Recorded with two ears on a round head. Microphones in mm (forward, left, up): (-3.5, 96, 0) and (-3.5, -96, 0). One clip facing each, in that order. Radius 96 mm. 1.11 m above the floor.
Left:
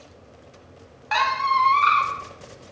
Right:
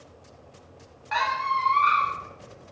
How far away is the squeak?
About 0.6 m.